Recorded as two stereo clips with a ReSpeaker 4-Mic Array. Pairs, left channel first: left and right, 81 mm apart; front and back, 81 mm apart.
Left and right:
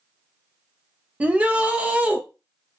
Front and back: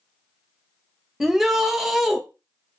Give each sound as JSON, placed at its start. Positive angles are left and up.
{"t": 1.2, "sound": "a shout", "azimuth_deg": -105, "distance_m": 0.6}